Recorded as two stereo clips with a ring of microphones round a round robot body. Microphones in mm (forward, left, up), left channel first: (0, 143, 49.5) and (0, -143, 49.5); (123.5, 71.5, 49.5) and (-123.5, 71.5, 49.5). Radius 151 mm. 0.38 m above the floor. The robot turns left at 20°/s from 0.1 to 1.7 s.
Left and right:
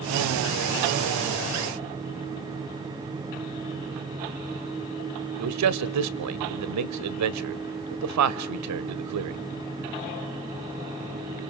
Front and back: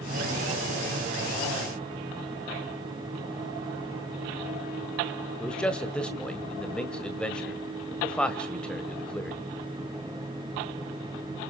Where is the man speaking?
85° right, 1.5 m.